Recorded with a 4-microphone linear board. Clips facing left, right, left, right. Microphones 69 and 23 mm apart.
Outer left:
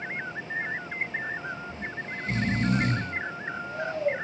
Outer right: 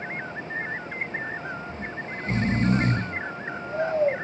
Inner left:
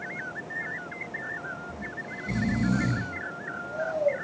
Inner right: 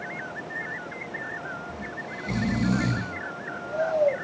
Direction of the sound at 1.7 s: 35° right (ahead or behind).